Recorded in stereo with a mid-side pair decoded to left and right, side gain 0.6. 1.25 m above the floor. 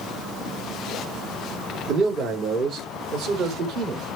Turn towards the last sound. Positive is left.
turn(degrees=-60)